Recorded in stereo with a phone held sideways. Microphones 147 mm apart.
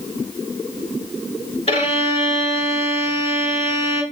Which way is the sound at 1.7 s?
40° left (ahead or behind).